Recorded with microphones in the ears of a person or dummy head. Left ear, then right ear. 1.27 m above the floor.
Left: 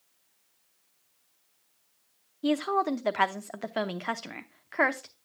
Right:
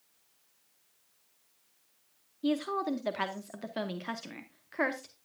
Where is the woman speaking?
35° left (ahead or behind), 0.8 m.